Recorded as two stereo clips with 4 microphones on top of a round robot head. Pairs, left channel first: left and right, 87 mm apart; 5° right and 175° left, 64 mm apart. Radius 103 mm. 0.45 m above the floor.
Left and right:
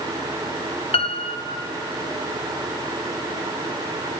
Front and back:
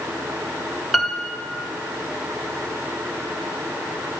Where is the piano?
90° left, 1.2 m.